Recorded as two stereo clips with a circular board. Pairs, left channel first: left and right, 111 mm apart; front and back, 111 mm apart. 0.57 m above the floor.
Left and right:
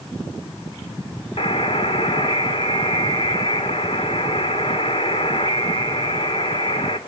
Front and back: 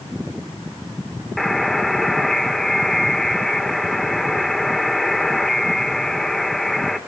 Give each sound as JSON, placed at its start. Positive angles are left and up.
{"t": 1.4, "sound": "a buzzer", "azimuth_deg": 85, "distance_m": 2.0}